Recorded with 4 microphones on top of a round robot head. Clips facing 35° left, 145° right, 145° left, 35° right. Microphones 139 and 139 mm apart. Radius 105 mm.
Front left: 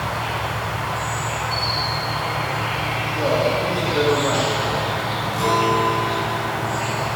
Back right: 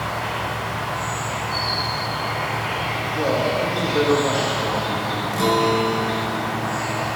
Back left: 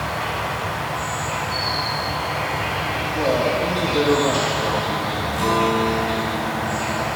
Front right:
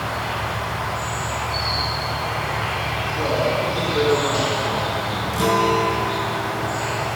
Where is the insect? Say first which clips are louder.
Front left 1 dB, back left 1 dB; 115° left, 1.7 m.